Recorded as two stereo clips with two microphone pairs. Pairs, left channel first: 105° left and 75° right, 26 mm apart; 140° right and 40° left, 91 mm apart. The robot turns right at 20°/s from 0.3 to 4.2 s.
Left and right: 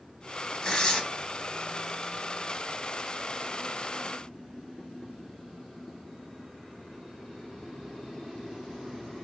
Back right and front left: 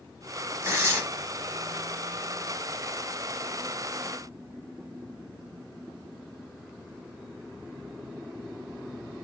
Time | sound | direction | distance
0.6 | tearing paper | 65° left | 0.6 m